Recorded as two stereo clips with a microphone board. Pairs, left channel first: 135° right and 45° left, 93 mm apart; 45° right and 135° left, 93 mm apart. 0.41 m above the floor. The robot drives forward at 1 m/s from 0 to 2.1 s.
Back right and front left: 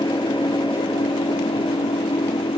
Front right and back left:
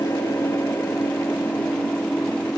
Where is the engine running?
105° right; by 2.6 s 125° right.